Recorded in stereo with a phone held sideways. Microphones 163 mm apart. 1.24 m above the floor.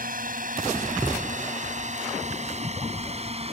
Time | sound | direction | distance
0.0 | a drone | 60° right (ahead or behind) | ?